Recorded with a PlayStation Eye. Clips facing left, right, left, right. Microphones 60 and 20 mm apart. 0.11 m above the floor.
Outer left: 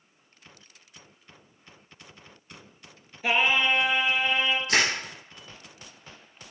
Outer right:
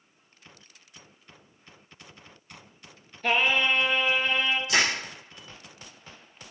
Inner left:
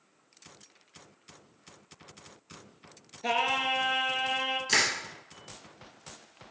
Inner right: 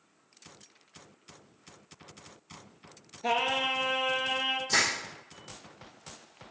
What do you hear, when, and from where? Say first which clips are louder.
3.2 s singing: even, even; 10° left (ahead or behind), 0.5 m
4.7 s crushing: even, inner left 1 dB; 50° left (ahead or behind), 2 m